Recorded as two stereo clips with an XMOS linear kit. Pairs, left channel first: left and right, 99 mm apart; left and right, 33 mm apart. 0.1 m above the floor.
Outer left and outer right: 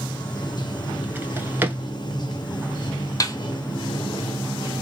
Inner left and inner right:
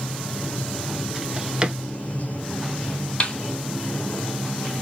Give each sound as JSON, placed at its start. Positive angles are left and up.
{"t": 0.0, "sound": "running water", "side_deg": 50, "distance_m": 0.8}
{"t": 1.1, "sound": "a drawer", "side_deg": -20, "distance_m": 0.7}
{"t": 3.2, "sound": "a snare drum", "side_deg": 35, "distance_m": 0.9}